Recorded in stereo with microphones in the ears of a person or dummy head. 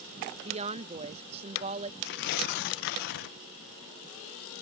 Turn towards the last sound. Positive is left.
turn(degrees=55)  # may be behind; listen again after turning